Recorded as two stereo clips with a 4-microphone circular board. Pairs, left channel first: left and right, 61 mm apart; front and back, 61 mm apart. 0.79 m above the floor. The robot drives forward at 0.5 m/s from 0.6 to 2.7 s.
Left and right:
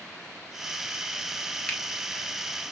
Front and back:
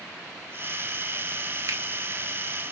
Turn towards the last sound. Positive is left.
turn(degrees=170)